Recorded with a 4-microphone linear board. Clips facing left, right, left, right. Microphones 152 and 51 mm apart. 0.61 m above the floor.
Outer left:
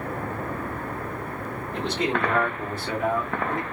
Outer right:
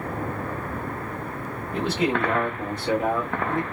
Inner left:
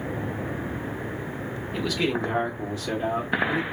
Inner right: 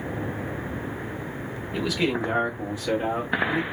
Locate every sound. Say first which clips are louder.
1.7 s a man speaking: outer right 3 dB, inner right 1 dB; centre (ahead or behind), 1.3 m; by 3.6 s 25° right (ahead or behind), 1.3 m